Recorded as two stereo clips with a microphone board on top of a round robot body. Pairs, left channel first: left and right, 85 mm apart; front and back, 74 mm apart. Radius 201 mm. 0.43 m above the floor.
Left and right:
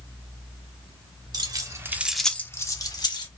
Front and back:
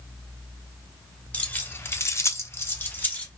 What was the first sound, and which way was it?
Keys jangling, 65° right.